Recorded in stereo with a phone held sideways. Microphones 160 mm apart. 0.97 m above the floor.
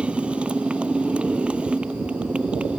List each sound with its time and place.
0.0 s a motorcycle: 5° right (ahead or behind)